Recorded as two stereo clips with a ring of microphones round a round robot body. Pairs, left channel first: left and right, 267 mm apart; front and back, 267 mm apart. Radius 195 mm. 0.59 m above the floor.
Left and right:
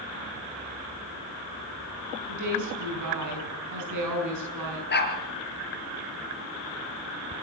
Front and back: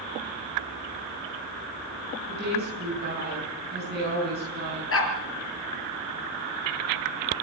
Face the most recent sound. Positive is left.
turn(degrees=40)